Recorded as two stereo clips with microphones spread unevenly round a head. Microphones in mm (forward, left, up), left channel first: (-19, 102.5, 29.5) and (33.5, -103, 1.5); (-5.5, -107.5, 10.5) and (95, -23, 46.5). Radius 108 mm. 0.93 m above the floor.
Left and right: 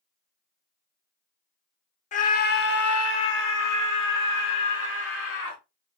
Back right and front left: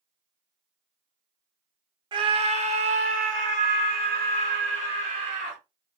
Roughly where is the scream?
Left.